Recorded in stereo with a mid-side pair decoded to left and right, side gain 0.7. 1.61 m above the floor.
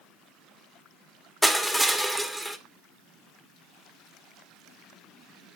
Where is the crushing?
5° left, 1.0 m.